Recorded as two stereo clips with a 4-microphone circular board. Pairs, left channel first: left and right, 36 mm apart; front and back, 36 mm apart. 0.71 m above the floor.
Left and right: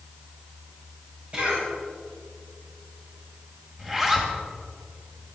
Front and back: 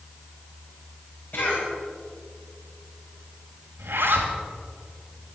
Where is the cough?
35° right, 5.5 m.